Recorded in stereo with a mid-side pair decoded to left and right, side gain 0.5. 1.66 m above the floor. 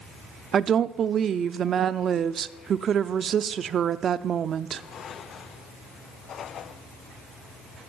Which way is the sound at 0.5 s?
50° right.